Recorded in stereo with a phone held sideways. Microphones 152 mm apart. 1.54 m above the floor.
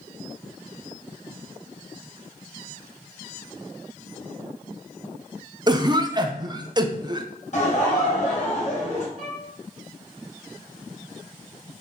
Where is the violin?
65° left (ahead or behind), 2.0 m.